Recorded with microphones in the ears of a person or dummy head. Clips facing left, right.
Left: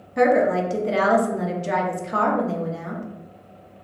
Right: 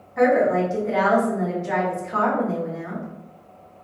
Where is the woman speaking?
35° left (ahead or behind), 0.8 m.